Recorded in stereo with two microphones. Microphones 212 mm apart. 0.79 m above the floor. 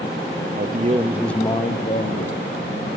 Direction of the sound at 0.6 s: 50° right (ahead or behind).